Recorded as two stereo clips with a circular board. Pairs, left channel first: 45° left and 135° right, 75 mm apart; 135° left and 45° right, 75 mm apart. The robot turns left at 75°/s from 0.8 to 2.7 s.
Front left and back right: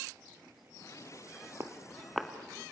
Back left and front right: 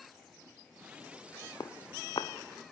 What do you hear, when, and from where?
1.6 s footsteps: 170° left, 2 m; by 2.7 s 105° left, 1.8 m